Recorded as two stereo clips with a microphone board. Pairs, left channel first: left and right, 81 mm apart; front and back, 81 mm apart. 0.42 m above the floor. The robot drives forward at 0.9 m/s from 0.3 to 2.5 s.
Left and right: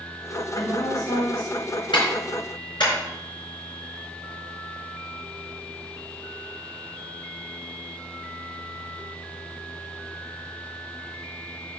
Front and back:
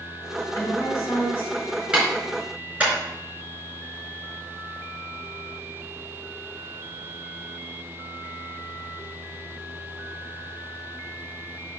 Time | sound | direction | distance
0.6 | a woman speaking | 45° left | 4 m
1.9 | a clap | 100° left | 4 m